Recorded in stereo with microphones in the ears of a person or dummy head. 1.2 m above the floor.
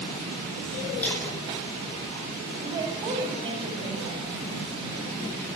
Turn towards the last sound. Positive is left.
turn(degrees=-30)  # may be behind; listen again after turning